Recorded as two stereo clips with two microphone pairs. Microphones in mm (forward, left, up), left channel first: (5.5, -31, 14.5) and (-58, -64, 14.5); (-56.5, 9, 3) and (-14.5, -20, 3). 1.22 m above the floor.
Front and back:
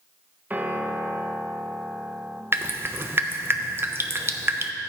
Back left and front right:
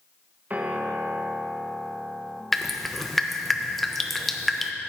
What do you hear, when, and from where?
0.5 s a piano: 90° right, 0.7 m
2.5 s dripping: 135° right, 0.6 m